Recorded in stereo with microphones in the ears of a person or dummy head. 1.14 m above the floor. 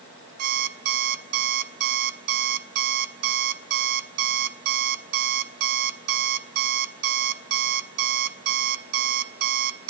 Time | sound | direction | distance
0.4 | an alarm clock | 55° right (ahead or behind) | 0.9 m